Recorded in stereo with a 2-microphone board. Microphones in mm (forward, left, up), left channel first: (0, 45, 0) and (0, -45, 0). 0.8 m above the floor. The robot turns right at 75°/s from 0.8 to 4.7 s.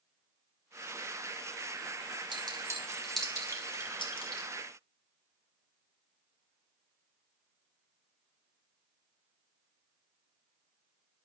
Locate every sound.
2.3 s a clink: 60° right (ahead or behind), 2.5 m; by 4.5 s 80° left, 2.5 m